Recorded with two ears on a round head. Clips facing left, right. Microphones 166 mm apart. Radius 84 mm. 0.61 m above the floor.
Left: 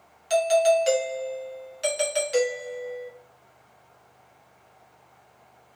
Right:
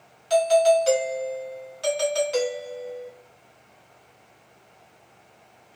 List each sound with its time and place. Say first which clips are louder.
0.3 s a doorbell: right 2 dB; 20° left (ahead or behind), 1.0 m